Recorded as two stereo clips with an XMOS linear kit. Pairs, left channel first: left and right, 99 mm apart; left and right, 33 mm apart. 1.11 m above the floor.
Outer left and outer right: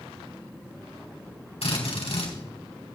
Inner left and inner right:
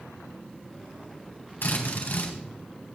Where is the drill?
85° left, 4 m.